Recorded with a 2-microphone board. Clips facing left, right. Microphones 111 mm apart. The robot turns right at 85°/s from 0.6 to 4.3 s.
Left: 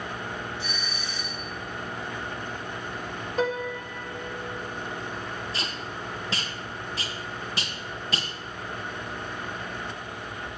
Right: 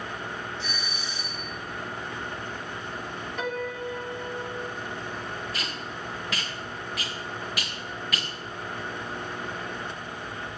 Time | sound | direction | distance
0.6 | a doorbell | 170° left | 3.5 m
3.4 | a piano | 145° left | 1.2 m
5.5 | tape being pulled | 30° left (ahead or behind) | 1.6 m